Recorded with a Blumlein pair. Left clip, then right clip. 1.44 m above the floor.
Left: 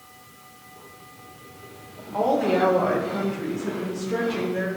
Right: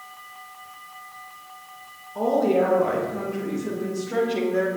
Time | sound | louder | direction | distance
2.1 | a woman speaking | even | 50° left | 1.9 m